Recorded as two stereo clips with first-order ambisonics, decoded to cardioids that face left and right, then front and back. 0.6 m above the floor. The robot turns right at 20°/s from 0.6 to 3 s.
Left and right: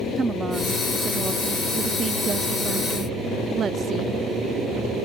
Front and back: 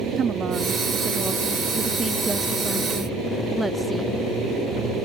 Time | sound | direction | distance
0.2 | a woman speaking | 145° right | 0.6 m